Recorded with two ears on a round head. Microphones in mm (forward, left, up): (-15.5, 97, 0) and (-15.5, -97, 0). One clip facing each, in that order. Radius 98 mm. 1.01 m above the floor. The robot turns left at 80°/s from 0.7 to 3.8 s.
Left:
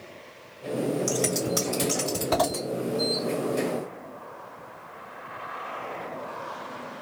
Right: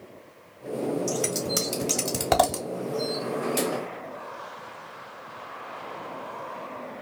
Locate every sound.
1.1 s scissors: 5° left (ahead or behind), 1.6 m; by 2.6 s 60° right (ahead or behind), 1.6 m